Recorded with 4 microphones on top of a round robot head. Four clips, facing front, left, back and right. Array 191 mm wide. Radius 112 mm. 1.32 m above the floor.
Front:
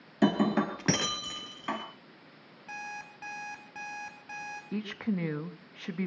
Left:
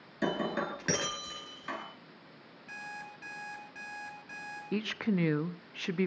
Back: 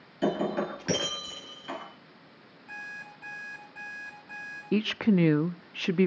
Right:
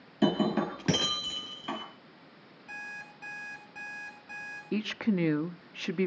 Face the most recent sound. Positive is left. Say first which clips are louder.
# right 2 dB, back 9 dB
turn(degrees=-170)